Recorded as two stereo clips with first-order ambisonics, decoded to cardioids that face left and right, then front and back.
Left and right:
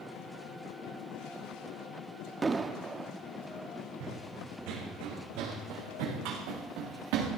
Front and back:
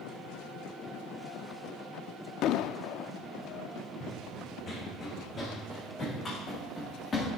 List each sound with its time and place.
2.4 s an explosion: 15° right, 0.5 m
4.0 s running footsteps: 65° right, 2.5 m; by 7.3 s 75° right, 4 m